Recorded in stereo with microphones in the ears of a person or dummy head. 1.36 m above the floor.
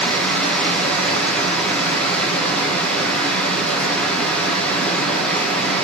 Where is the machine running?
10° left (ahead or behind), 1.6 m.